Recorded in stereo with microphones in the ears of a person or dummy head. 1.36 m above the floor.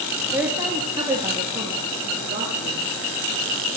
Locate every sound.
0.3 s a woman speaking: 10° right (ahead or behind), 2.5 m; by 2.8 s 40° right (ahead or behind), 3 m